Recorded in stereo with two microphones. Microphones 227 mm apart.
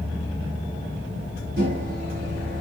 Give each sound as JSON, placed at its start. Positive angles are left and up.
{"t": 1.6, "sound": "a microwave", "side_deg": -70, "distance_m": 2.0}